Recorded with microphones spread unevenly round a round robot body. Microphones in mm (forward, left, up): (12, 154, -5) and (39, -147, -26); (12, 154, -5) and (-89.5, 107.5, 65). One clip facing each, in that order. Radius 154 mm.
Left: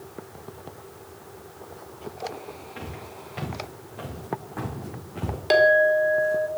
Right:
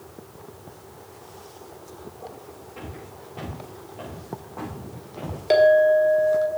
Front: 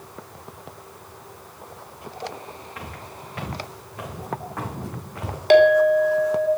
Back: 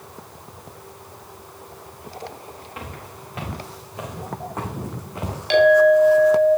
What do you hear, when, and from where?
2.8 s footsteps: 150° left, 5 m; by 5.4 s 145° left, 3.5 m
5.5 s a clink: 25° left, 1.3 m